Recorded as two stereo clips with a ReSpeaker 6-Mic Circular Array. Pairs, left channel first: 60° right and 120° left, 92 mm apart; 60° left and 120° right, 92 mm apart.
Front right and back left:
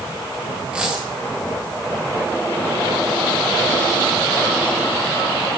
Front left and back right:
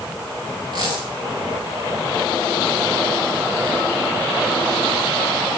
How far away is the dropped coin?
About 5.5 m.